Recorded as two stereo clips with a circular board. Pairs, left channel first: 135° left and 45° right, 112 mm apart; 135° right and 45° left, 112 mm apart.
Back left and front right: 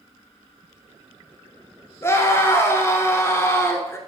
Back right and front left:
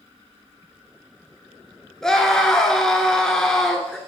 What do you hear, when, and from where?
2.0 s a scream: 145° left, 1.3 m